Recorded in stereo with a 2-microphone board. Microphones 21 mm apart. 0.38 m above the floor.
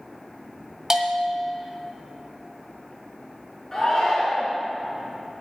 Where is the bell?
30° right (ahead or behind), 1.3 m.